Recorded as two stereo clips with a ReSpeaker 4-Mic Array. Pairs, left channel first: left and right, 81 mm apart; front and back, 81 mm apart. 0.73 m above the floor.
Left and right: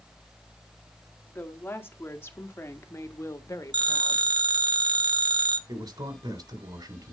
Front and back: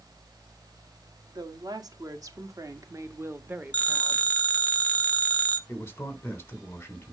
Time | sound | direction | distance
1.4 | a woman speaking | 155° left | 2 m
3.7 | a phone ringing | 75° right | 1.5 m
5.7 | a man speaking | 60° right | 3 m